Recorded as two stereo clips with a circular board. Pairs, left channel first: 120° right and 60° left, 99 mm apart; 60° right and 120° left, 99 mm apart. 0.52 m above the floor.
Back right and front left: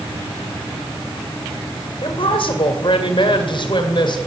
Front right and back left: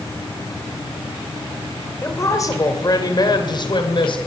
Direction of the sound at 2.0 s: 120° right.